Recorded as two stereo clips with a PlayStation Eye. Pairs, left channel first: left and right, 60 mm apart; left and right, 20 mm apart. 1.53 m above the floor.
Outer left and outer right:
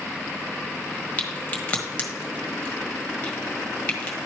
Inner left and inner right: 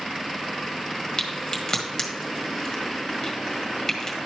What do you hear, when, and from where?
1.2 s a crack: 25° left (ahead or behind), 1.5 m